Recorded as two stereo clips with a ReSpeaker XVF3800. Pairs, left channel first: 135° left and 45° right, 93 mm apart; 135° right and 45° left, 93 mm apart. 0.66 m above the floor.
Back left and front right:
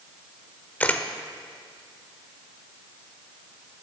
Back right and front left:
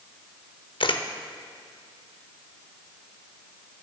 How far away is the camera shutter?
About 0.5 m.